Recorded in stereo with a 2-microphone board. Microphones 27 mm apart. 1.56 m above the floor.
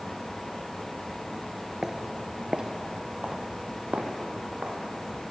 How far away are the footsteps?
About 1.6 m.